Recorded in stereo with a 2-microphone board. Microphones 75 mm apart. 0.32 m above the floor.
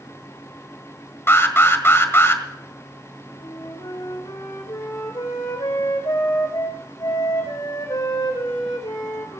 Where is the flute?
65° left (ahead or behind), 5.5 m.